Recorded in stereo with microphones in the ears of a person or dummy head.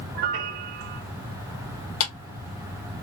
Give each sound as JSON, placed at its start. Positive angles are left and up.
{"t": 0.1, "sound": "a piano", "side_deg": -25, "distance_m": 0.8}
{"t": 2.0, "sound": "a clap", "side_deg": 75, "distance_m": 2.5}